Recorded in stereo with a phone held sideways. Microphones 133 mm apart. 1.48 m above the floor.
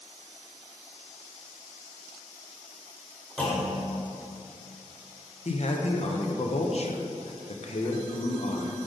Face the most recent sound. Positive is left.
turn(degrees=55)  # may be behind; listen again after turning